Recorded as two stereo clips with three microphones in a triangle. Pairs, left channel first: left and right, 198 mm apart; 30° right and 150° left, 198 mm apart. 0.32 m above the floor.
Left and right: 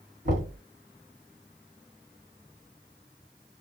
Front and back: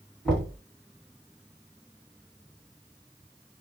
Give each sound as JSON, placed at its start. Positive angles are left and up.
{"t": 0.2, "sound": "knocking", "azimuth_deg": -110, "distance_m": 1.9}